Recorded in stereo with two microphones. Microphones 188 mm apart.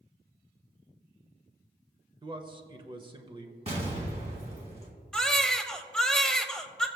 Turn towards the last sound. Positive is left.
turn(degrees=5)  # may be behind; listen again after turning